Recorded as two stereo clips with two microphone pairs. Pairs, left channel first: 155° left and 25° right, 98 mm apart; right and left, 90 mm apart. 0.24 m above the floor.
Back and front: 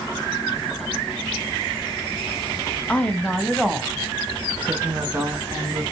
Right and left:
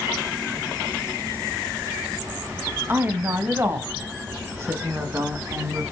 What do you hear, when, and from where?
2.9 s a woman speaking: 100° left, 1.7 m; by 5.8 s 40° left, 3 m